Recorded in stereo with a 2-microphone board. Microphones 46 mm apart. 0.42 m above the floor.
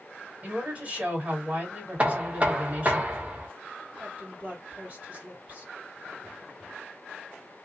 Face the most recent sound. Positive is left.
turn(degrees=-35)  # may be behind; listen again after turning